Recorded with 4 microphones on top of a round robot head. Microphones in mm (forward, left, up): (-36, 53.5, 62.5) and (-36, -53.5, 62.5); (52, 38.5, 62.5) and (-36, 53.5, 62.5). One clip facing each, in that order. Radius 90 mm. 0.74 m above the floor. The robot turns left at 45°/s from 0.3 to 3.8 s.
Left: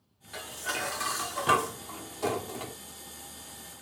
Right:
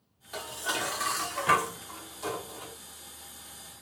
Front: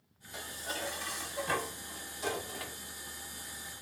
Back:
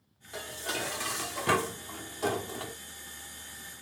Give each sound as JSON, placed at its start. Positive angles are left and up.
{"t": 0.3, "sound": "dishes clattering", "azimuth_deg": -150, "distance_m": 1.2}